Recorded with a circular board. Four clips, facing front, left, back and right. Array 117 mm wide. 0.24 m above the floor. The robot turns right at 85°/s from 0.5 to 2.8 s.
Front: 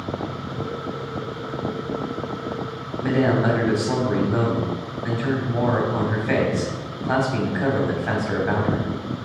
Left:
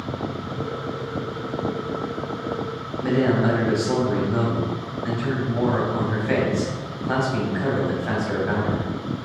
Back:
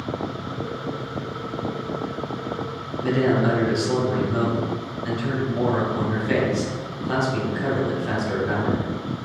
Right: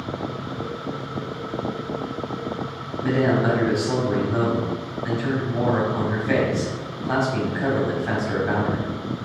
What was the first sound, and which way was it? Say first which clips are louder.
A man speaking: even, even; 5° right.